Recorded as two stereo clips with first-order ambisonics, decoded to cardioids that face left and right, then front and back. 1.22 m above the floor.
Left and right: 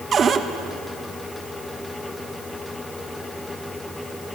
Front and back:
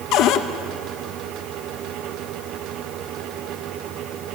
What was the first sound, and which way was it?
A cupboard door, 25° right.